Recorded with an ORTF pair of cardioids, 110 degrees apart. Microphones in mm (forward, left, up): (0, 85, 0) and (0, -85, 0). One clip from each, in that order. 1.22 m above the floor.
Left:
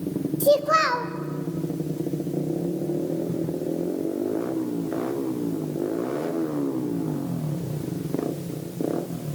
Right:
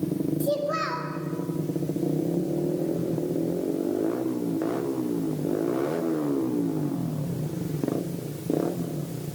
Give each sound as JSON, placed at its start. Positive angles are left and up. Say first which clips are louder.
{"t": 0.4, "sound": "a child speaking", "louder": "left 10 dB", "azimuth_deg": 45, "distance_m": 0.8}